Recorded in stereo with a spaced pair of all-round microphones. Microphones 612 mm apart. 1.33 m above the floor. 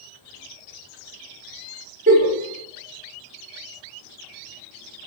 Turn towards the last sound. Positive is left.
turn(degrees=-15)  # may be behind; listen again after turning